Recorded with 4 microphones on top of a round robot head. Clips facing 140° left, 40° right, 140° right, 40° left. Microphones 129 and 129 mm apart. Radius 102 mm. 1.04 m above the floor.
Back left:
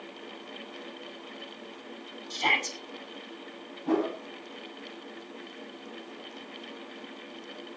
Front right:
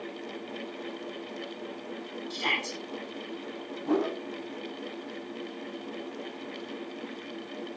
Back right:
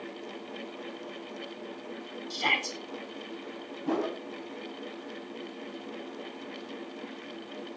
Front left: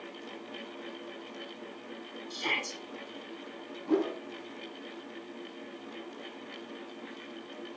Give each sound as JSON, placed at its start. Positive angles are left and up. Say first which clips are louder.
{"t": 2.3, "sound": "a shout", "louder": "back left 4 dB, back right 5 dB", "azimuth_deg": -165, "distance_m": 7.0}
{"t": 3.9, "sound": "a whoosh", "louder": "even, front left 1 dB", "azimuth_deg": -135, "distance_m": 8.5}